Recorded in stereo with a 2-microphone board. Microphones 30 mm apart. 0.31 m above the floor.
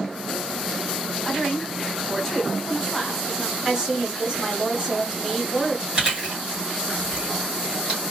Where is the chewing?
35° right (ahead or behind), 1.8 m.